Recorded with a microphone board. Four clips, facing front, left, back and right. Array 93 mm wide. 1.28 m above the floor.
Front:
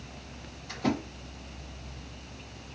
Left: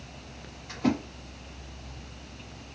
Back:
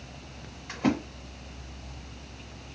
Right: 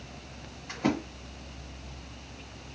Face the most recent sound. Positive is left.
turn(degrees=-155)